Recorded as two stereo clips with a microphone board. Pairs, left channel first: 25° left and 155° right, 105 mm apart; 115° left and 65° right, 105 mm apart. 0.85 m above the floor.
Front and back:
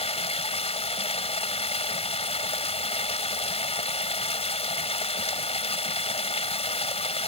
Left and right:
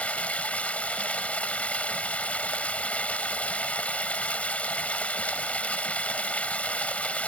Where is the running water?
35° left.